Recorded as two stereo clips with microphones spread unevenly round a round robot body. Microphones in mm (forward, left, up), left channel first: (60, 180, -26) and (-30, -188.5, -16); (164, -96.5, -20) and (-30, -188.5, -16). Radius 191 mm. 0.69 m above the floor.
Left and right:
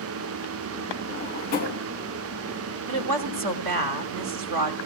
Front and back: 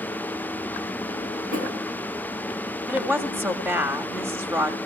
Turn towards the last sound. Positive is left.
turn(degrees=-75)